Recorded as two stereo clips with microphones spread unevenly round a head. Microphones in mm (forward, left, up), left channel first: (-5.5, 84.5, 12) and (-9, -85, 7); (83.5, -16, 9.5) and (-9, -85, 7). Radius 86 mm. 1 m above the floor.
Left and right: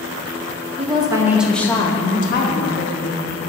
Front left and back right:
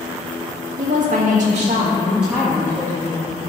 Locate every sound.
0.8 s a woman speaking: 150° right, 1.6 m; by 3.3 s 100° left, 2 m